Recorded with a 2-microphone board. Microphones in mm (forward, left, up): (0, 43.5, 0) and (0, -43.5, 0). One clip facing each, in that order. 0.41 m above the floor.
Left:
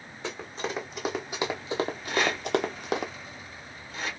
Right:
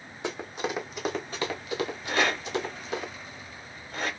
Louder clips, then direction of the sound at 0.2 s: Right 2 dB; 15° right (ahead or behind).